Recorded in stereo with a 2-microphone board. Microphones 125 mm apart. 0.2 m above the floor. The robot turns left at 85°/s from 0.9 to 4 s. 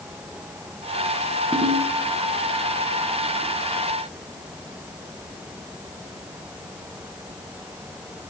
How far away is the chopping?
No chopping in this recording.